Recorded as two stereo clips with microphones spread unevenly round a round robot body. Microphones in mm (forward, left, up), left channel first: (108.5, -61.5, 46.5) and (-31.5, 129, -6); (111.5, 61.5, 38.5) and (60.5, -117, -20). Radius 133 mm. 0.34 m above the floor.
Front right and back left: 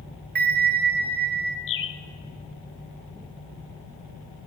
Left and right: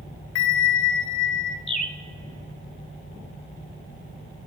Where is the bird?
15° right, 0.9 m.